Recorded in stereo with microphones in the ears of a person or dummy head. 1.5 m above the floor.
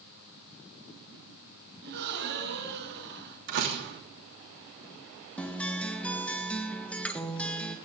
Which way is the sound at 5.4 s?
5° left (ahead or behind).